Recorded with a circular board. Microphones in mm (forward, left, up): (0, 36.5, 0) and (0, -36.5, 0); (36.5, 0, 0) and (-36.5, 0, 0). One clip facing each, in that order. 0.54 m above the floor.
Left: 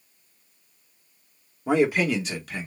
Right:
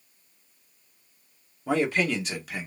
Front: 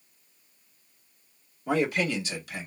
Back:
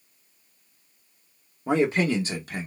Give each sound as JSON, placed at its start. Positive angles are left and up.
{"t": 1.7, "sound": "a man speaking", "azimuth_deg": 140, "distance_m": 0.8}